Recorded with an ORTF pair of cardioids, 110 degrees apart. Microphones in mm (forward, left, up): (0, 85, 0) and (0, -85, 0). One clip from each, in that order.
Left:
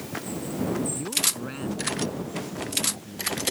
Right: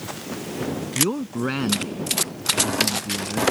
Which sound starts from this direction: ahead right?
A man speaking, at 0.9 s.